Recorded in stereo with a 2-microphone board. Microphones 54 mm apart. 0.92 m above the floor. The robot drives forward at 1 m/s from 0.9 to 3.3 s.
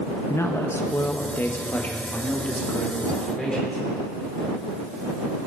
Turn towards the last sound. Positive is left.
turn(degrees=10)  # may be behind; listen again after turning